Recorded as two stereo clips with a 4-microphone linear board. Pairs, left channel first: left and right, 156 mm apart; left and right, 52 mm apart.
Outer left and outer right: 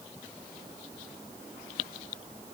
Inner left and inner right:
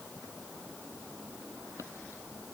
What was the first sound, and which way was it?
Only background noise.